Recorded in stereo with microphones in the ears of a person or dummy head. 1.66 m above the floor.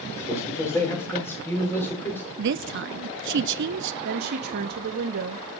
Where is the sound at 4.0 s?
50° right (ahead or behind), 1.1 m.